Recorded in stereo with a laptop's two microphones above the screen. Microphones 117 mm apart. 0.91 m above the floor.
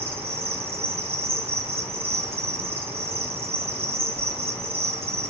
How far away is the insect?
About 8.5 m.